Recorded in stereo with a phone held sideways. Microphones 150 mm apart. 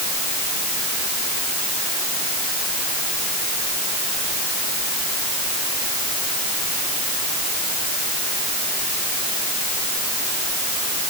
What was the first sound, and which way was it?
Only background noise.